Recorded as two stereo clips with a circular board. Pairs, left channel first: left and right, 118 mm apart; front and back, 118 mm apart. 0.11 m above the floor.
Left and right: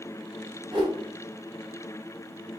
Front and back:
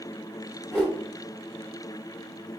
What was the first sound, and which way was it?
A whoosh, 85° right.